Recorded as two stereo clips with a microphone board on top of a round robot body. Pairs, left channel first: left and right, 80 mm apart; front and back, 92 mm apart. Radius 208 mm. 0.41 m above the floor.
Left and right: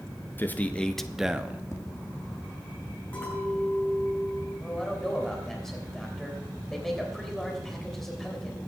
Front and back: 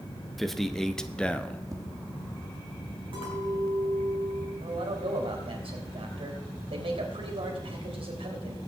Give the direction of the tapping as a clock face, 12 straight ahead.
7 o'clock.